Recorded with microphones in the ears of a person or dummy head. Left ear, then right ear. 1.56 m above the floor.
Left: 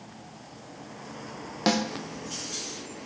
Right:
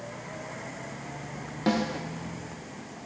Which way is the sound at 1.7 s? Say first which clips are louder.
Left 2 dB; 45° left (ahead or behind).